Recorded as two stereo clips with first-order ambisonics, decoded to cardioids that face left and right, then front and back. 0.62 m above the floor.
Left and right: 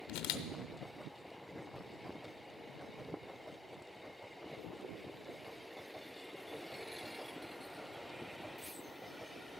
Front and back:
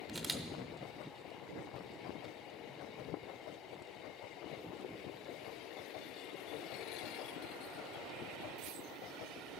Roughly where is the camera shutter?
Left.